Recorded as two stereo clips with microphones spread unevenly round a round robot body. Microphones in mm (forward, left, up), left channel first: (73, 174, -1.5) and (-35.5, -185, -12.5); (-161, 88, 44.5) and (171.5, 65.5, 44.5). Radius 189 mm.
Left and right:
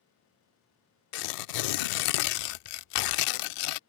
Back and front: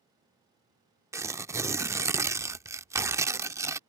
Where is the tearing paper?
80° left.